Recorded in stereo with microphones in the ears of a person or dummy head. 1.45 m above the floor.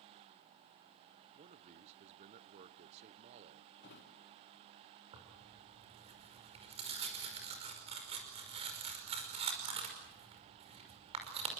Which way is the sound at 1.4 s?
45° right (ahead or behind).